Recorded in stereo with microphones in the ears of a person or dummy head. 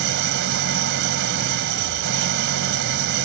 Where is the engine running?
60° right (ahead or behind).